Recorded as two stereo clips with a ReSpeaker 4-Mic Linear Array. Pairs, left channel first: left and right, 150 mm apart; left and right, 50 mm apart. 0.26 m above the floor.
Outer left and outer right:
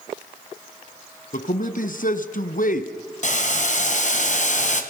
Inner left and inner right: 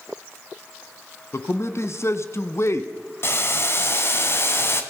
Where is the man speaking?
65° left (ahead or behind), 2 m.